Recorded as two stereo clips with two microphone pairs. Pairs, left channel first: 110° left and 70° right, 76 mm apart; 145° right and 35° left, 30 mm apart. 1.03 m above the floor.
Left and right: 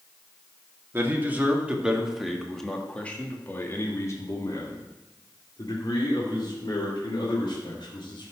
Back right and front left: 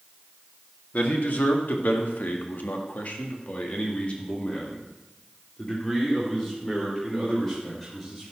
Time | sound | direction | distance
0.9 | a man speaking | 135° right | 1.8 m